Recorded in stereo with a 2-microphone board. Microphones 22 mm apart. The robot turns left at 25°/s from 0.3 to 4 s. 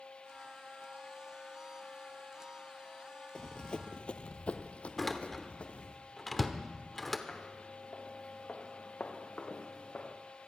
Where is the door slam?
10° left (ahead or behind), 1.0 m.